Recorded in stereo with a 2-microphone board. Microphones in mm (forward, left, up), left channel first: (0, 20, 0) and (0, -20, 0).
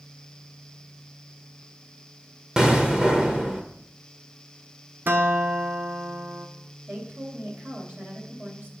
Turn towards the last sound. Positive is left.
turn(degrees=-55)  # may be behind; listen again after turning